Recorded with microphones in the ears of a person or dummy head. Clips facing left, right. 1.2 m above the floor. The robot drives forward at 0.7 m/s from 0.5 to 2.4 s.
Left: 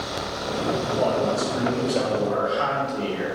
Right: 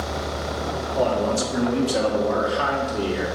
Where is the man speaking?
80° right, 2 m; by 3.3 s 70° right (ahead or behind), 2.5 m.